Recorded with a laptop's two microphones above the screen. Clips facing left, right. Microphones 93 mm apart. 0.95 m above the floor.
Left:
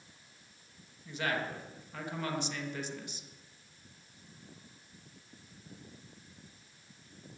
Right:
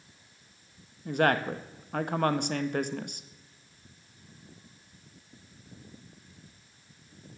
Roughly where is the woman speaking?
Right.